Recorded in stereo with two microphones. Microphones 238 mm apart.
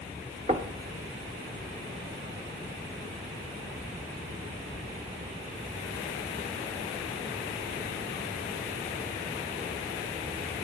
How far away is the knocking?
About 1.0 m.